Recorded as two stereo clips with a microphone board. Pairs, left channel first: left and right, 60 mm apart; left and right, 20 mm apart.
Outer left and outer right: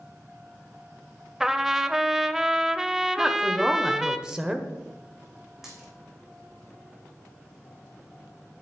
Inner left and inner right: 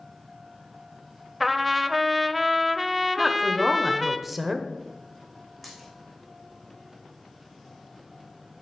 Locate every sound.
1.4 s a trumpet: 5° right (ahead or behind), 0.6 m
3.2 s a woman speaking: 10° right (ahead or behind), 1.1 m
5.6 s a dropped coin: 5° right (ahead or behind), 3.5 m